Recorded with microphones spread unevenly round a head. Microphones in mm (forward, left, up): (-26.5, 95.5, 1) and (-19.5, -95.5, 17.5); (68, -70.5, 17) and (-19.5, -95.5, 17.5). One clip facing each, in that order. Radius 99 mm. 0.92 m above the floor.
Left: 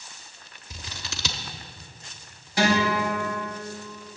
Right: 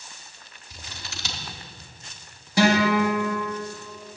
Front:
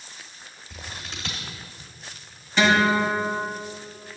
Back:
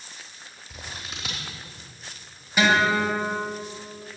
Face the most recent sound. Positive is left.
turn(degrees=-80)